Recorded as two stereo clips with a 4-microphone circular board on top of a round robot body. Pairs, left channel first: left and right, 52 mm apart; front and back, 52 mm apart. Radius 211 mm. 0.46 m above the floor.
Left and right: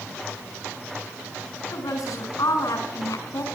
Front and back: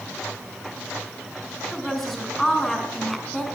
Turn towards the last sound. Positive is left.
turn(degrees=85)